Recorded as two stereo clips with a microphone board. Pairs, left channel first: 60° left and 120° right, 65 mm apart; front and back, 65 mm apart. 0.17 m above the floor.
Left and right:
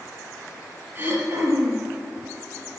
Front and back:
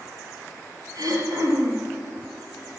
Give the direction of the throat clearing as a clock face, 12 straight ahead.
6 o'clock.